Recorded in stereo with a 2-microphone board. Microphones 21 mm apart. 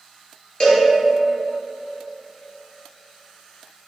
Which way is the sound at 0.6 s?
45° left (ahead or behind).